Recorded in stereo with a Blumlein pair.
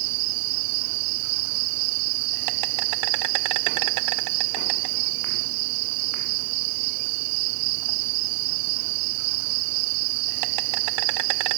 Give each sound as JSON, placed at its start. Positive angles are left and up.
{"t": 0.0, "sound": "an insect", "azimuth_deg": -45}